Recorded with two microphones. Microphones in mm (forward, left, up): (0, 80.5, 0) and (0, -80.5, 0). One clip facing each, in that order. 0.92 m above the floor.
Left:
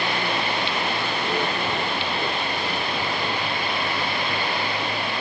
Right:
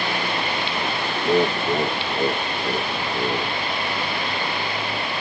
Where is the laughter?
40° right (ahead or behind); by 3.6 s 50° right (ahead or behind).